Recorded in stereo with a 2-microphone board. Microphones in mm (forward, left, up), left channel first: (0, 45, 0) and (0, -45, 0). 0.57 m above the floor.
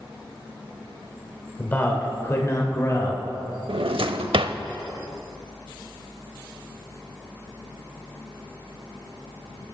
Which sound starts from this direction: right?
A drawer, at 3.7 s.